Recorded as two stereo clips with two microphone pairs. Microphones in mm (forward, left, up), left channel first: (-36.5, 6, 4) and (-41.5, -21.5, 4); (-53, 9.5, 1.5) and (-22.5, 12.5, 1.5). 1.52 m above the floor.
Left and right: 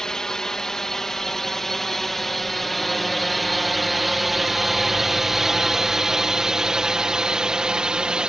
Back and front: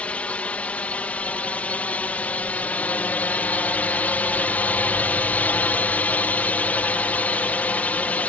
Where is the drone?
145° left; by 8.3 s 150° right.